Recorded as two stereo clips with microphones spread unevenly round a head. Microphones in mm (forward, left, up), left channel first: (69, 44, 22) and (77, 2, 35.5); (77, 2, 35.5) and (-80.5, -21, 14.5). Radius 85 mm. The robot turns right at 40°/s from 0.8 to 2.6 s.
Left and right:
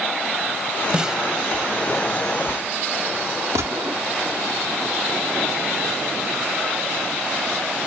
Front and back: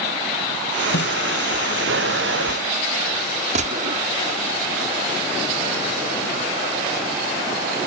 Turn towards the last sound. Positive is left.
turn(degrees=-125)